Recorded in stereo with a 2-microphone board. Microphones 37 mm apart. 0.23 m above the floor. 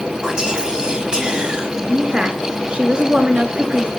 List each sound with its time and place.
0.2 s whispering: 20° right (ahead or behind), 1.4 m
1.9 s a woman speaking: 30° right (ahead or behind), 2.5 m